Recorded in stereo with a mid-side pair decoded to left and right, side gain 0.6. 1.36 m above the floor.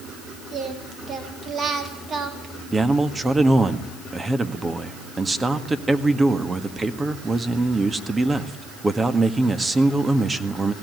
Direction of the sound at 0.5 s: 40° right.